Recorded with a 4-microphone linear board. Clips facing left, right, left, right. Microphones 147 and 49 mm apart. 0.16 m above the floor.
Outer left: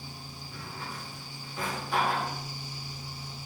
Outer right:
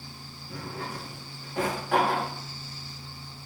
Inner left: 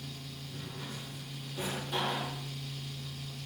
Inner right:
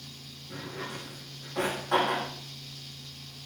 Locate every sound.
0.5 s a drawer: 80° right, 7.5 m